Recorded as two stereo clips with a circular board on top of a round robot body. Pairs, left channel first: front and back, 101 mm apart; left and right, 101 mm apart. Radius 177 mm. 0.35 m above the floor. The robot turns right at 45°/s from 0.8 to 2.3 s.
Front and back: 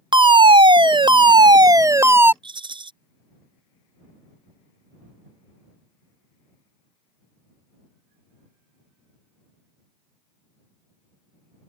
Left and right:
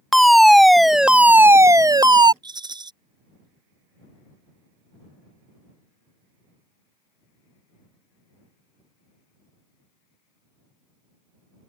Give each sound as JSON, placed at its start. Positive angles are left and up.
{"t": 0.1, "sound": "a fire alarm", "azimuth_deg": 180}
{"t": 2.4, "sound": "a rattle", "azimuth_deg": -140}